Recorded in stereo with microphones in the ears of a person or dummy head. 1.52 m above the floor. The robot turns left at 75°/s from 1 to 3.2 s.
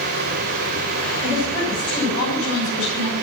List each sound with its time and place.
1.2 s a woman speaking: 165° right, 9.5 m; by 3.1 s 50° left, 9.5 m